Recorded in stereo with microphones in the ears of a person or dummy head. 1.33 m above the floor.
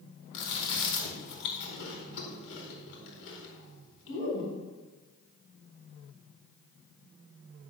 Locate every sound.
0.3 s chewing: 65° left (ahead or behind), 4.5 m